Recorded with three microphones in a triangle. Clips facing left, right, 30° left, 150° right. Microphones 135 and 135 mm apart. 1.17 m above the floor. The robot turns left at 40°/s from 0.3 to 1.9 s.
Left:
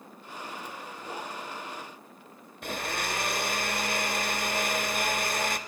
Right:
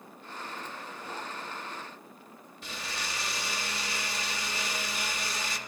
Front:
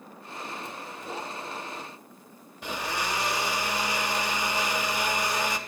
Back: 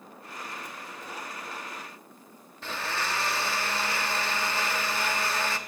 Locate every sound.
2.6 s a blender: 100° left, 0.8 m